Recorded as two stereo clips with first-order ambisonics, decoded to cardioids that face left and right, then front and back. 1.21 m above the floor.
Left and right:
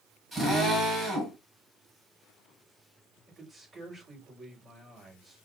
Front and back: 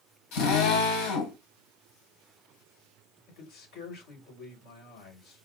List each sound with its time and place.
0.3 s a drill: 10° right, 6 m
3.3 s a man speaking: 25° right, 5.5 m